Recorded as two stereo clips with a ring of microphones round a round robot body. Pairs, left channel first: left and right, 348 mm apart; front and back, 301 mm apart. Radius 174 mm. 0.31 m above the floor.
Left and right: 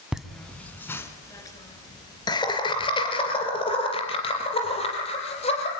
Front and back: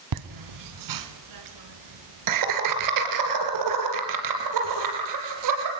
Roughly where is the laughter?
Behind.